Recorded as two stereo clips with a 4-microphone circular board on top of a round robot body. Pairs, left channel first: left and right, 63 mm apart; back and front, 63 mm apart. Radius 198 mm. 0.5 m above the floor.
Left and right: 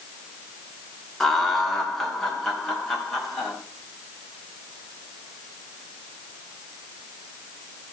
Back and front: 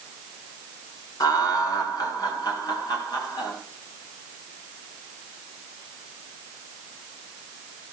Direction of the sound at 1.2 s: 170° left.